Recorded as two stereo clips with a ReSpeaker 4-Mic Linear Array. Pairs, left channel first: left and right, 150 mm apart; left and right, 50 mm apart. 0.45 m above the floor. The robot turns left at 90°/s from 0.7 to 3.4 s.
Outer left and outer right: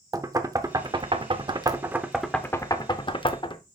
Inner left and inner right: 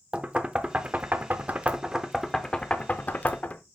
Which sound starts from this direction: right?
Knocking, at 0.1 s.